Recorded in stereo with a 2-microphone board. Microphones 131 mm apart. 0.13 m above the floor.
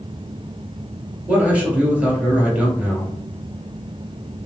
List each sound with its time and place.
1.3 s a man speaking: 10° right (ahead or behind), 2 m